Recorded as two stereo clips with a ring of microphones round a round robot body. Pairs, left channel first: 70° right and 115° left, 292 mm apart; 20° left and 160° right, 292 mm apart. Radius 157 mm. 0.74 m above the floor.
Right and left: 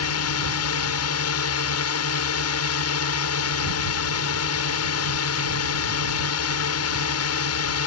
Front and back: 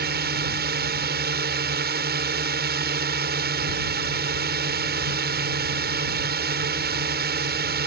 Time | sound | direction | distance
0.0 | a drone | 100° right | ?